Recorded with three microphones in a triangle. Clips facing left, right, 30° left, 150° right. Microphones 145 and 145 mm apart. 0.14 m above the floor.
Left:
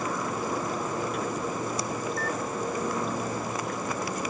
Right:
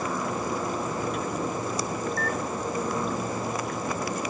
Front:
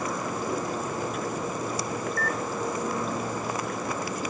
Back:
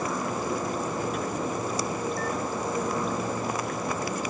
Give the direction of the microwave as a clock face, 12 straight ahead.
12 o'clock.